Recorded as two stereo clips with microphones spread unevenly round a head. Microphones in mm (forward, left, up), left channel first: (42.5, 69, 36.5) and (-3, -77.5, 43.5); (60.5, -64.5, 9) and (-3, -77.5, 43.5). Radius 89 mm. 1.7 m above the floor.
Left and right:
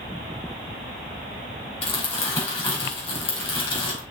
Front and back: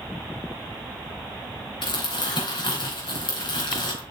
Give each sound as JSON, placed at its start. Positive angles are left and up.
{"t": 1.8, "sound": "crumpling", "azimuth_deg": 15, "distance_m": 4.5}